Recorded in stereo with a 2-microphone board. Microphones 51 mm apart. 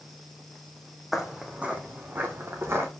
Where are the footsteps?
10° right (ahead or behind), 1.5 m; by 2.9 s 55° right (ahead or behind), 2 m.